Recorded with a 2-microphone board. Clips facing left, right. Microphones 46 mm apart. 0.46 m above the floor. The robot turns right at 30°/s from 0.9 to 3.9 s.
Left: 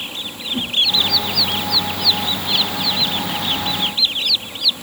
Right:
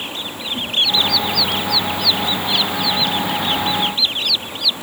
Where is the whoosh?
45° left (ahead or behind), 5.5 m.